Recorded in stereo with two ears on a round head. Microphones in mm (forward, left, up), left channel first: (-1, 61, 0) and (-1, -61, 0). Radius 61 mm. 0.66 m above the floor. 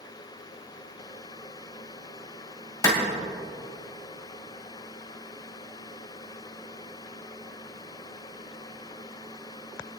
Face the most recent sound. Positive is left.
turn(degrees=30)  # may be behind; listen again after turning